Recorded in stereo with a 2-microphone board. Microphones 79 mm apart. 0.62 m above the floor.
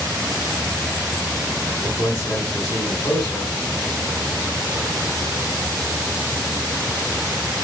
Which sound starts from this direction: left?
A man speaking, at 1.8 s.